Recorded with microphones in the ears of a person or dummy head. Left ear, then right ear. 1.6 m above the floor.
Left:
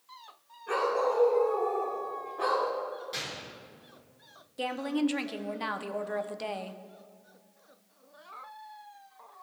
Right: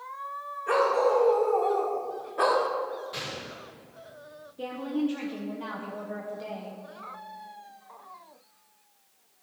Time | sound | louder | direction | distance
0.7 | a dog barking | right 5 dB | 35° right (ahead or behind) | 2.5 m
3.1 | a gunshot | right 1 dB | 15° left (ahead or behind) | 3 m
4.6 | a woman speaking | left 1 dB | 35° left (ahead or behind) | 0.6 m